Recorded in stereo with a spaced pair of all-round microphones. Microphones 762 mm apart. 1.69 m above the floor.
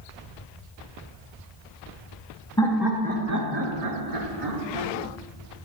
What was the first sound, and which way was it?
Laughter, 5° left (ahead or behind).